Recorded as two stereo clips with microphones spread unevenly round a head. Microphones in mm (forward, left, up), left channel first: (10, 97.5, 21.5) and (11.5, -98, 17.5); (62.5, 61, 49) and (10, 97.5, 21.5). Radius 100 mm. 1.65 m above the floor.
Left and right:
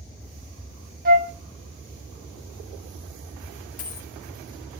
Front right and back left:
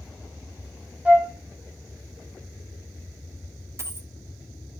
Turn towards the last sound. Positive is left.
turn(degrees=95)